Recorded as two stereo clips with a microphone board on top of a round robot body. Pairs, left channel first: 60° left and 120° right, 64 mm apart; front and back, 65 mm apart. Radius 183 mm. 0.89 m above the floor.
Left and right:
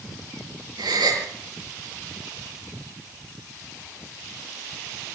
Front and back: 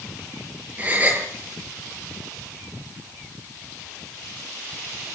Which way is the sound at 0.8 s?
110° right.